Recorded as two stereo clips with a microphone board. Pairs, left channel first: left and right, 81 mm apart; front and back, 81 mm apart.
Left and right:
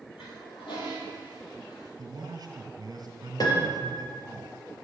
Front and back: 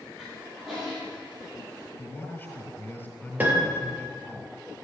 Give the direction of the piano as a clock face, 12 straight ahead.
8 o'clock.